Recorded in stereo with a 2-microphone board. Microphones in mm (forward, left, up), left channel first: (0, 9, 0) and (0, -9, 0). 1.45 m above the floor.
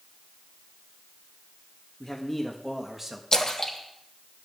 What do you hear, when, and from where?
2.0 s a man speaking: 25° left (ahead or behind), 1.8 m; by 3.2 s 25° right (ahead or behind), 1.7 m
3.3 s a splash: 45° left (ahead or behind), 2.0 m